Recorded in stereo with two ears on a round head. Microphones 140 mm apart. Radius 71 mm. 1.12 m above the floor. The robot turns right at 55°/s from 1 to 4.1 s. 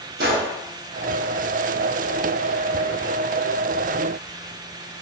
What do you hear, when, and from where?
0.2 s a gunshot: 65° right (ahead or behind), 1.0 m